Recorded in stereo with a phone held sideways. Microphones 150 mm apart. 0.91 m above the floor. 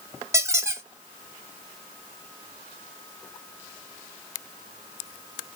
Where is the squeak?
20° right (ahead or behind), 0.6 m.